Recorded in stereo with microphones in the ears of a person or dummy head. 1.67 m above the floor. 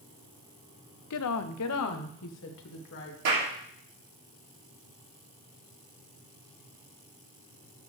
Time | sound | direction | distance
1.1 | a woman speaking | 75° left (ahead or behind) | 0.7 m
3.2 | a clap | 65° right (ahead or behind) | 3.5 m